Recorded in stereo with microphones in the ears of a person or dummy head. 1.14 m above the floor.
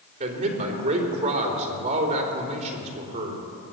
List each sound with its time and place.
0.2 s a man speaking: 50° right (ahead or behind), 3 m